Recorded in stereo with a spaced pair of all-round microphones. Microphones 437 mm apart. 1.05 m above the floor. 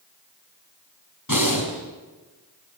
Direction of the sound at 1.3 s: 45° left (ahead or behind).